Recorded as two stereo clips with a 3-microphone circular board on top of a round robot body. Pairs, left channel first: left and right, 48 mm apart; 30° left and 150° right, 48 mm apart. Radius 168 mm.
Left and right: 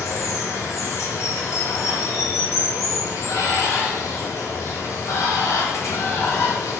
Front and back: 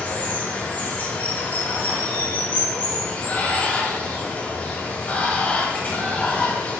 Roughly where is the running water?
Left.